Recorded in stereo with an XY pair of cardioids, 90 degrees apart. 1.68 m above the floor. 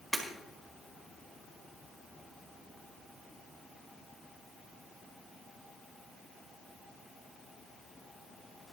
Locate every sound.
0.1 s breaking glass: 5° right, 4.5 m